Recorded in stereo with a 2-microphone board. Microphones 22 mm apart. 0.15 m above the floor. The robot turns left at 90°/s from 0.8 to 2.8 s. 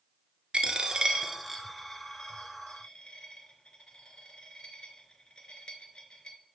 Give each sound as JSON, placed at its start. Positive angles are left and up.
{"t": 0.5, "sound": "a dropped coin", "side_deg": -55, "distance_m": 0.8}